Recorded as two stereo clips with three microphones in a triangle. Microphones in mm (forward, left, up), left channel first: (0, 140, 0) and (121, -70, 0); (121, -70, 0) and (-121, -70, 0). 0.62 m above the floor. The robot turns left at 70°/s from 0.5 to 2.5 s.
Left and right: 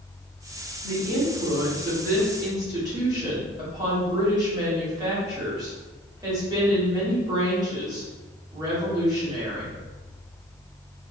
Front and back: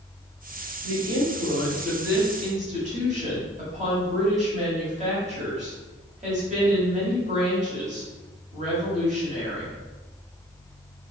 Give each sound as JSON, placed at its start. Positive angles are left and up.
{"t": 0.8, "sound": "a woman speaking", "azimuth_deg": -15, "distance_m": 1.5}